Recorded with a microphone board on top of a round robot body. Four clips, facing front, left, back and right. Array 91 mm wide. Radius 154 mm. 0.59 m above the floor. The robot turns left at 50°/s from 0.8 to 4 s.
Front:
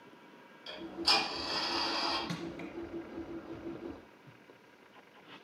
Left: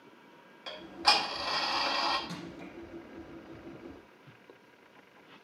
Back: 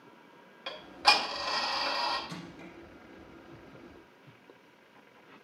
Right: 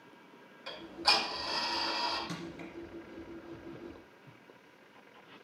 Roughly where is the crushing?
Ahead.